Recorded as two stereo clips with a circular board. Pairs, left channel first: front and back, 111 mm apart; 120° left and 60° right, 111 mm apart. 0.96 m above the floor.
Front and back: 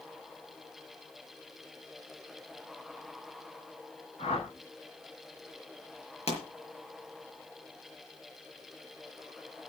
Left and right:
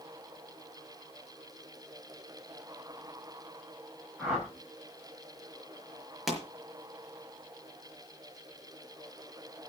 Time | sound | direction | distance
4.2 | a whoosh | 25° left | 6 m
6.3 | a pop | 30° left | 5 m